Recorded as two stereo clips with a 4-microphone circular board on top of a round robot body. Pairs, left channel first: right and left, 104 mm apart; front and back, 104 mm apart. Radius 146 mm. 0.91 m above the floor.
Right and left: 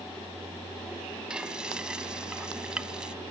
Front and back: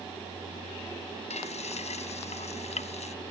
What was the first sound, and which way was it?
Frying, 10° left.